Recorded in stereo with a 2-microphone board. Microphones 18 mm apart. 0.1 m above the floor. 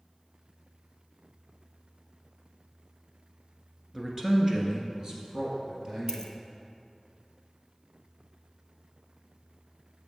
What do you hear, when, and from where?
3.9 s a man speaking: 10° right (ahead or behind), 1.4 m; by 6.3 s 45° right (ahead or behind), 2.5 m
6.1 s a dropped coin: 25° left (ahead or behind), 0.7 m